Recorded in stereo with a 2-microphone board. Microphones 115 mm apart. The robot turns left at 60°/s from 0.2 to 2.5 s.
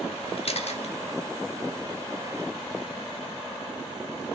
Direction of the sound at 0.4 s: 55° left (ahead or behind).